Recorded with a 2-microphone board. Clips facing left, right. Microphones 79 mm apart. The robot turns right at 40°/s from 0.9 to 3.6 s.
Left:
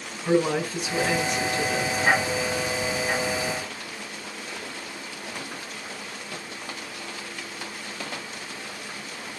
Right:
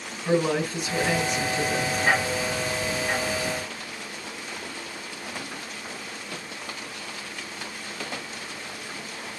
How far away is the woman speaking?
About 2 m.